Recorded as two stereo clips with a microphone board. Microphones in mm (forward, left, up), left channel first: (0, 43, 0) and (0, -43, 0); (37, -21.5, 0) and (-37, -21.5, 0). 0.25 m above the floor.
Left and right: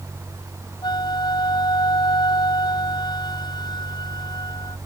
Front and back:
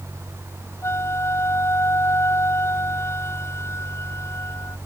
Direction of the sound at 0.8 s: 55° left.